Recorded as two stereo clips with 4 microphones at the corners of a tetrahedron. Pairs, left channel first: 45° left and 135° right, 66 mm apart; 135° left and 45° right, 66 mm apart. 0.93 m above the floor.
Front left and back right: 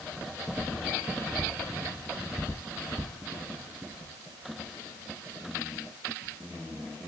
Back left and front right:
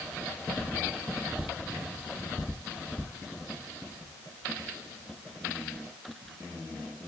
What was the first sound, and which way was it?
Only background noise.